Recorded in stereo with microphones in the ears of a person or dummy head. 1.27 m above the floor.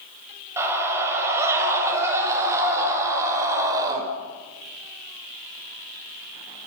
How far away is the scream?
About 7 m.